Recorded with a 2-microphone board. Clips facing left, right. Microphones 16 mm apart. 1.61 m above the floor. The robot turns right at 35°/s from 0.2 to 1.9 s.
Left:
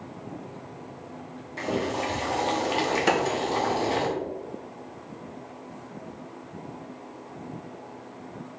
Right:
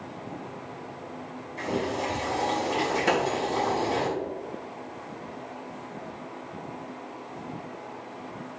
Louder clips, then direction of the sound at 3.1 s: Left 1 dB; 40° left (ahead or behind).